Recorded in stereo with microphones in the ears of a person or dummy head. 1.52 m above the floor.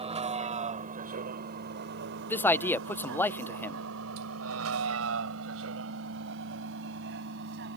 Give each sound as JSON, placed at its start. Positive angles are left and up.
{"t": 0.0, "sound": "a vehicle", "side_deg": -30}
{"t": 2.3, "sound": "a man speaking", "side_deg": 10}